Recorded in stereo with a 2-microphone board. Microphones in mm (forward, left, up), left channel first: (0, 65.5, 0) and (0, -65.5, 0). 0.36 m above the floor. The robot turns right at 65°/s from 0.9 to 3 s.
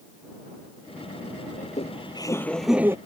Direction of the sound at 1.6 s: 110° left.